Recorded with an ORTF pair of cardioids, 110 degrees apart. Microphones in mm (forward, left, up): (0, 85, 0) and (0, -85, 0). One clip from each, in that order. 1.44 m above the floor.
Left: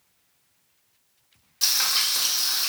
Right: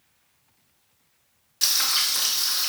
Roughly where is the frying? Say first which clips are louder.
Even; ahead.